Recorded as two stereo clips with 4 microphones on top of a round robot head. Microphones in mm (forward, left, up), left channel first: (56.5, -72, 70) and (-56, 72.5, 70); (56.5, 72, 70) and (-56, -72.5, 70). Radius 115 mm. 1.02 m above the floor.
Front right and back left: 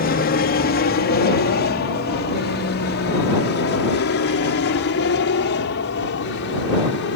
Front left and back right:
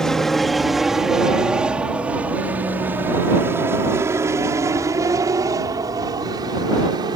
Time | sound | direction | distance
0.0 | an aircraft | 35° right | ?